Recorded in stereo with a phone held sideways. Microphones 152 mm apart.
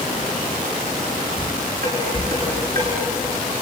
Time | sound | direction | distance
1.4 | dishes clattering | 70° right (ahead or behind) | 8 m